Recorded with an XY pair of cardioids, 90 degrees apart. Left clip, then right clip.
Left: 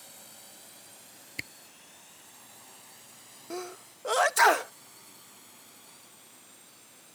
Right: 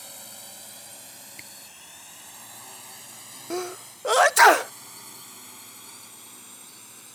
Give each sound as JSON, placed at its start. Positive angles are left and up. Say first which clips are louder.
{"t": 0.0, "sound": "a drone", "louder": "right 8 dB", "azimuth_deg": -60}
{"t": 1.4, "sound": "a camera shutter", "louder": "left 8 dB", "azimuth_deg": 60}
{"t": 3.5, "sound": "a sneeze", "louder": "right 7 dB", "azimuth_deg": -45}